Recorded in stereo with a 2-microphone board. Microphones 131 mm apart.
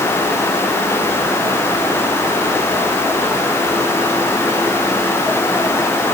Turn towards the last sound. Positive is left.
No sound to turn to.